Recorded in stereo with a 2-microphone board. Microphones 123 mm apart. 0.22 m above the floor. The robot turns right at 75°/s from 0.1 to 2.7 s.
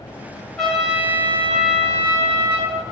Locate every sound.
0.6 s a trumpet: 5° left (ahead or behind), 1.5 m; by 2.8 s 10° right (ahead or behind), 1.5 m